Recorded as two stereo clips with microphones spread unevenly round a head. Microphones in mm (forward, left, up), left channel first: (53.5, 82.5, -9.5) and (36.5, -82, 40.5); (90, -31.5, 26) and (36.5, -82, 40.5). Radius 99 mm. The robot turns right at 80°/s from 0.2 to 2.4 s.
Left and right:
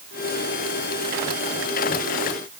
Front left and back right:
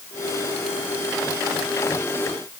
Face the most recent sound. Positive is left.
No sound to turn to.